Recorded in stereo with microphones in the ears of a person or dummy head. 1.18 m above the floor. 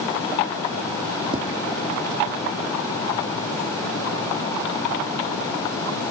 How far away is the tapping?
About 0.5 m.